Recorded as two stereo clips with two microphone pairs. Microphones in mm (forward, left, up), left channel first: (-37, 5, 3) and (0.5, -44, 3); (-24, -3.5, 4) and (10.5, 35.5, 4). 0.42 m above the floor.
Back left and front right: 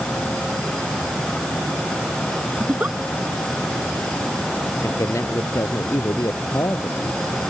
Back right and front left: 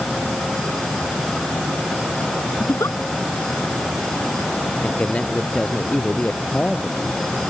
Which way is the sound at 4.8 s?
165° left.